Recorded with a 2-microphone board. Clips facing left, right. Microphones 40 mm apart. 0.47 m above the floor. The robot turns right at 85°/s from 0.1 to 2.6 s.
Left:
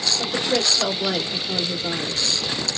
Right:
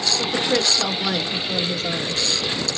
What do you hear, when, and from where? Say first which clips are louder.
0.2 s a woman speaking: right 1 dB; 30° right (ahead or behind), 1.3 m; by 2.2 s 30° left (ahead or behind), 1.3 m